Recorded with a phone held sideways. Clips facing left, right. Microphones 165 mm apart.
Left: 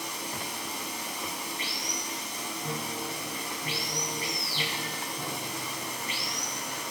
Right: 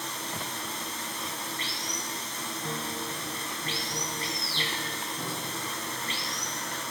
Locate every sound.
0.0 s running water: 10° left (ahead or behind), 5 m
2.6 s a piano: 5° left (ahead or behind), 3 m